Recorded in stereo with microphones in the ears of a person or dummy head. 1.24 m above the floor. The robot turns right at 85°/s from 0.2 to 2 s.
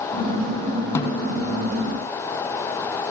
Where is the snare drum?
20° left (ahead or behind), 0.6 m.